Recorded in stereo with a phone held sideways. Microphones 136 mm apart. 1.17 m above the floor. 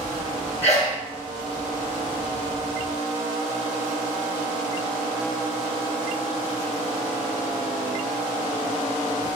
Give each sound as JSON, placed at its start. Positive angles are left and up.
{"t": 0.6, "sound": "a sneeze", "side_deg": 15, "distance_m": 0.8}